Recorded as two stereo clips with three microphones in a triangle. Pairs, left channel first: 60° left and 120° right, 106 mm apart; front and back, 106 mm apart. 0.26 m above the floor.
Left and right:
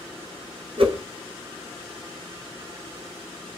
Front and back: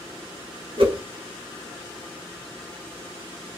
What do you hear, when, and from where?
0.8 s a whoosh: 150° right, 0.7 m